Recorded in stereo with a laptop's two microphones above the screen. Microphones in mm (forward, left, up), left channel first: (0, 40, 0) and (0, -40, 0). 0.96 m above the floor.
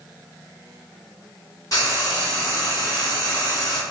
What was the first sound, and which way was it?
Frying, 45° left (ahead or behind).